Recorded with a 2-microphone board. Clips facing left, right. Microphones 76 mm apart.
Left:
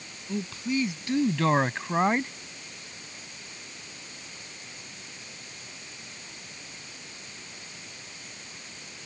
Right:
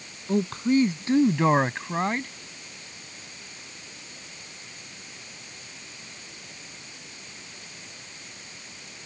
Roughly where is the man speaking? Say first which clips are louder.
Right 7 dB; right.